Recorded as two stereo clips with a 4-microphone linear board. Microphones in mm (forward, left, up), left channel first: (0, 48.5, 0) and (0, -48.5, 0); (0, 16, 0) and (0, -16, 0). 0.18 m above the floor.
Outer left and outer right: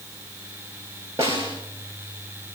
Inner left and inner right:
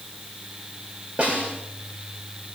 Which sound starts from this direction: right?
A snare drum, at 1.2 s.